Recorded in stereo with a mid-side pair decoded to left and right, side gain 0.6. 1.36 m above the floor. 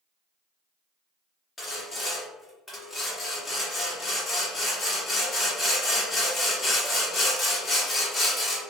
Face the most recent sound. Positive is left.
turn(degrees=15)